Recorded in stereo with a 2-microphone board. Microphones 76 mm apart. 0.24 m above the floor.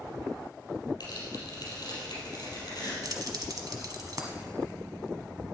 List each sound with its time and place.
1.0 s tearing paper: 60° left (ahead or behind), 4 m
3.0 s keys jangling: 55° right (ahead or behind), 1.2 m